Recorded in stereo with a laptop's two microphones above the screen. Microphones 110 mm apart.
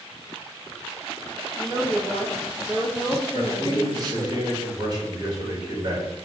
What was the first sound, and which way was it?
A woman speaking, 25° right (ahead or behind).